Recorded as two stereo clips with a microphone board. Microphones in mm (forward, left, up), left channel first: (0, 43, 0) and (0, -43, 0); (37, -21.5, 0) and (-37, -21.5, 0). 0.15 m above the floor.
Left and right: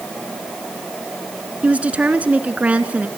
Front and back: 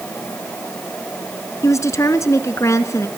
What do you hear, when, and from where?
1.6 s a woman speaking: 20° right, 1.7 m